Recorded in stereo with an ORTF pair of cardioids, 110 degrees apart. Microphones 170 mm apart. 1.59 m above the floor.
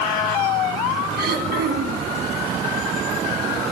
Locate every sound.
1.2 s throat clearing: 70° right, 1.9 m